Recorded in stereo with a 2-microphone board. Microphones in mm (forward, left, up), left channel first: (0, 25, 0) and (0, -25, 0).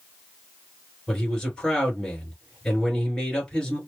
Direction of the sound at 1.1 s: 15° left (ahead or behind).